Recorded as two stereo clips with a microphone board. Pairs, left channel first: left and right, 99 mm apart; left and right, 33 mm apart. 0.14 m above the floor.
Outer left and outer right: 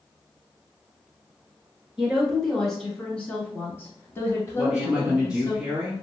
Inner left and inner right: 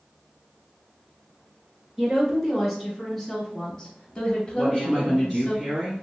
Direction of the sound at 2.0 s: 5° right (ahead or behind).